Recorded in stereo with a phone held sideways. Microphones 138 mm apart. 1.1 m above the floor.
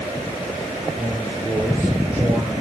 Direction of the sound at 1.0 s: 10° right (ahead or behind).